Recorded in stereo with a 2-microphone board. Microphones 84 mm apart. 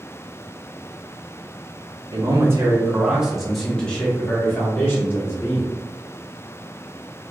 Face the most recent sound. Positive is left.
turn(degrees=30)  # may be behind; listen again after turning